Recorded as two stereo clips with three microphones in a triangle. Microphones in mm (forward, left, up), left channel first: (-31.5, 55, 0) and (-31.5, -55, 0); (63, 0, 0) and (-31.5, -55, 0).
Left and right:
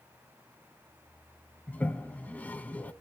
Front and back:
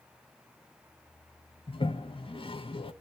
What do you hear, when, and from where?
1.7 s a toilet flushing: 15° left, 0.5 m